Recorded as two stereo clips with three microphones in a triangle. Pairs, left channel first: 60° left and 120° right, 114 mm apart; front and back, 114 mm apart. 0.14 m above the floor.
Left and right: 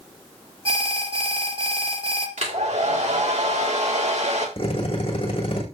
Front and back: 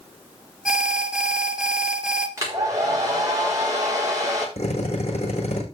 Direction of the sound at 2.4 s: 120° right.